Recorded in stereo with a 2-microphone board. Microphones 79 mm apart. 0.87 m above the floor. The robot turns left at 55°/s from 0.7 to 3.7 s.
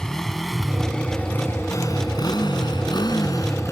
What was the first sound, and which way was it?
A motorcycle, 10° left (ahead or behind).